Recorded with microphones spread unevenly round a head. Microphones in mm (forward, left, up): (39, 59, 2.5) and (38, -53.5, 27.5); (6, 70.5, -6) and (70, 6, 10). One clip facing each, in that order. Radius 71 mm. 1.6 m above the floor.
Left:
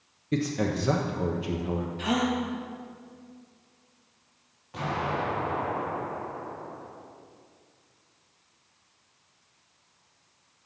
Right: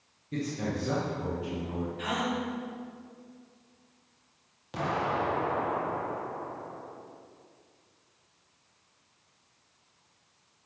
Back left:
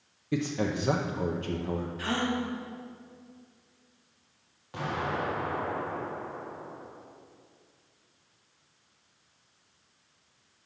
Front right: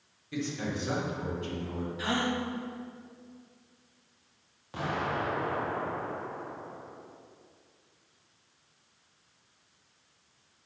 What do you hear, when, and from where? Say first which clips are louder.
0.3 s a man speaking: left 5 dB, back left 5 dB; 95° left, 0.8 m
2.0 s a gasp: left 6 dB, front right 1 dB; 30° left, 1.5 m
4.7 s an explosion: even, even; 135° right, 1.9 m